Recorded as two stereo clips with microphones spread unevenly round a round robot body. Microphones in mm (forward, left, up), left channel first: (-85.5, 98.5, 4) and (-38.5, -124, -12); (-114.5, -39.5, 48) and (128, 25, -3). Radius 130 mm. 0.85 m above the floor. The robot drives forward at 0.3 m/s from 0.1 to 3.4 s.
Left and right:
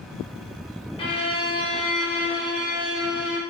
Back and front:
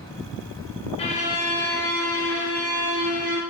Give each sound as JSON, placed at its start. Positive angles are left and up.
{"t": 1.0, "sound": "a violin", "azimuth_deg": 135, "distance_m": 0.5}